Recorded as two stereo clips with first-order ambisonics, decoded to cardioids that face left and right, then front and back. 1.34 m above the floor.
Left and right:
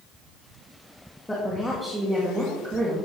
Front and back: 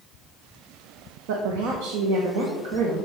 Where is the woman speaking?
175° left, 1.5 m; by 3.1 s 150° right, 1.9 m.